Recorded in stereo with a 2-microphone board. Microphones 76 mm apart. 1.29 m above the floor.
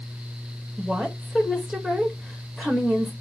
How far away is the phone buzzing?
I don't hear a phone buzzing.